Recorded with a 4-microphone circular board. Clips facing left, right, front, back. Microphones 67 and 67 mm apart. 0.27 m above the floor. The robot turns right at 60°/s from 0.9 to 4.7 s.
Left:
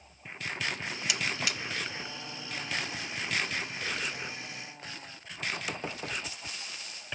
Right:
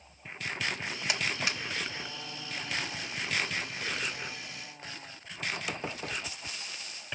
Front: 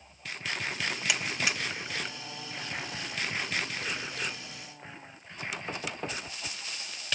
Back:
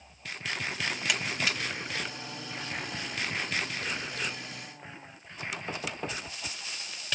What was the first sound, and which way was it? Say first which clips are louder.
A buzzer: right 1 dB, even; 85° right.